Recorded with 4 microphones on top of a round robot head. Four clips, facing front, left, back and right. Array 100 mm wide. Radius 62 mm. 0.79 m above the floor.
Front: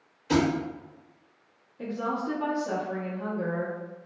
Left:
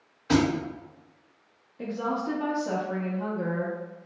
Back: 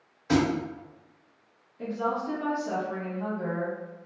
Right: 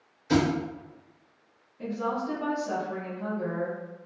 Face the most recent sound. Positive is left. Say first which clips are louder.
# left 1 dB, back 1 dB
turn(degrees=80)